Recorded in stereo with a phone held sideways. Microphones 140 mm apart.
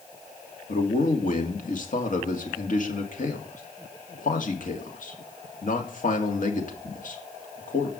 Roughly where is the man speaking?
Left.